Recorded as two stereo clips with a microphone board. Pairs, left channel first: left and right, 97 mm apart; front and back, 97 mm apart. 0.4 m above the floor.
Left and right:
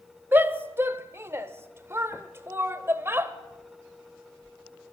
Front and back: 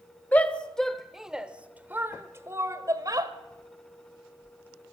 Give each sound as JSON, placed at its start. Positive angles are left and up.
{"t": 0.3, "sound": "a shout", "azimuth_deg": -50, "distance_m": 1.2}